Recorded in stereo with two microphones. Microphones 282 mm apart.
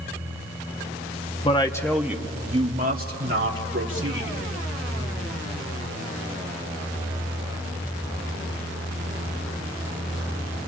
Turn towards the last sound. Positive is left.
turn(degrees=-50)  # may be behind; listen again after turning